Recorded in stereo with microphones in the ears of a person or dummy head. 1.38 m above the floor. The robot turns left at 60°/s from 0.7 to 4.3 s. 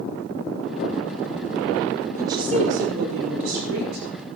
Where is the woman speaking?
20° right, 4.5 m; by 4.1 s 130° right, 4.5 m.